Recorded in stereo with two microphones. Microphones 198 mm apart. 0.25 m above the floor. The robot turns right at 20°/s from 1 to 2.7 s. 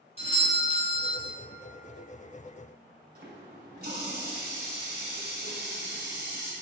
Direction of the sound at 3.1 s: 50° right (ahead or behind).